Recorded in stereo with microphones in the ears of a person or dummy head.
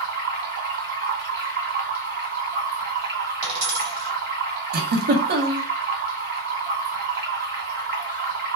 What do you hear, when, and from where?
0.0 s running water: 55° right (ahead or behind), 1.6 m
3.4 s a dropped coin: 55° right (ahead or behind), 1.4 m
4.7 s a giggle: 50° right (ahead or behind), 0.5 m